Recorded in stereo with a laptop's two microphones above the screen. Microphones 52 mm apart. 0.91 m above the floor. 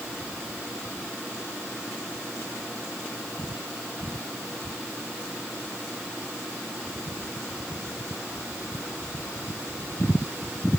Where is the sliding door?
No sliding door in this recording.